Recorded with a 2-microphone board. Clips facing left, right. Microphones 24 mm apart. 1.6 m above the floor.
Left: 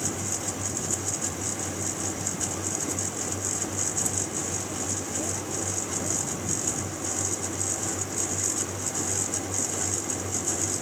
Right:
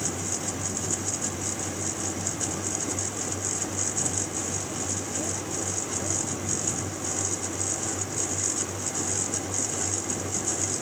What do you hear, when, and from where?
Only background noise.